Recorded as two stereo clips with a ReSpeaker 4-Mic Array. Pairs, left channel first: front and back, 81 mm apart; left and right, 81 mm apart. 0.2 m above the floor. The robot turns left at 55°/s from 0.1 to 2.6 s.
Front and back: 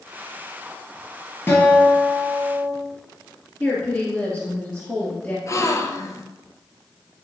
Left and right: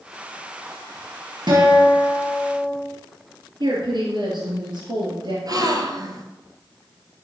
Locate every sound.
1.5 s a guitar: 65° right, 3.5 m; by 2.7 s 125° right, 3.5 m
3.6 s a woman speaking: 85° right, 2.5 m
5.5 s a gasp: 50° right, 0.9 m